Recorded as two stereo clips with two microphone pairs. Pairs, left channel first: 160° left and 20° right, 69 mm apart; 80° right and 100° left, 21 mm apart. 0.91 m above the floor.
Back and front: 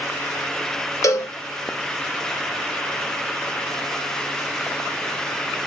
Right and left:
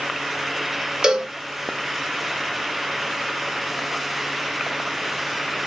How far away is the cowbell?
About 0.6 m.